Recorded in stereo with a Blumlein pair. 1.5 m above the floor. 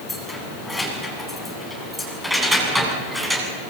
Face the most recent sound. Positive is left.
turn(degrees=-10)